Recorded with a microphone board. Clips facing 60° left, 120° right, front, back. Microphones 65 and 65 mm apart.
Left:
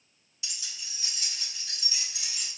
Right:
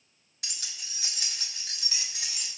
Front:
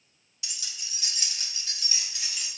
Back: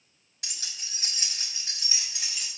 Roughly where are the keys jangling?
Behind right.